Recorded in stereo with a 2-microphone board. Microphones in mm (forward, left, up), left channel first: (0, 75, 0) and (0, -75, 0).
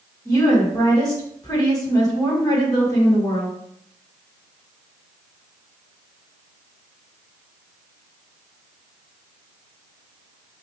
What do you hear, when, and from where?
0.2 s a woman speaking: 25° left (ahead or behind), 1.5 m